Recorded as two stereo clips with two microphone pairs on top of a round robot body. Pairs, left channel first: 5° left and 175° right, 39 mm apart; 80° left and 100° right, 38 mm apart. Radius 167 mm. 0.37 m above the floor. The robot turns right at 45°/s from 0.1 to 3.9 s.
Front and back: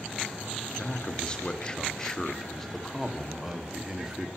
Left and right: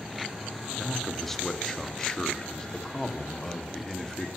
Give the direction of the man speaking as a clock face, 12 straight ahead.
12 o'clock.